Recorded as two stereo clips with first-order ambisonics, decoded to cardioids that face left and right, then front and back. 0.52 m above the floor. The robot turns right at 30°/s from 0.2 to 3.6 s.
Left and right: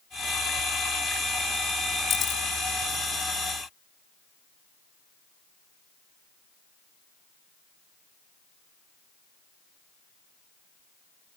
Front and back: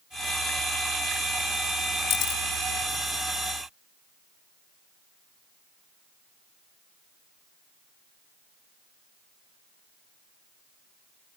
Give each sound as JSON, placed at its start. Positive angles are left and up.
{"t": 2.1, "sound": "a camera shutter", "azimuth_deg": 35}